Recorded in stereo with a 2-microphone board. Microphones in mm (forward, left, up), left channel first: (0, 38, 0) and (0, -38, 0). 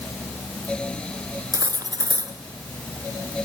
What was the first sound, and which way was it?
Cutlery clinking, 50° right (ahead or behind).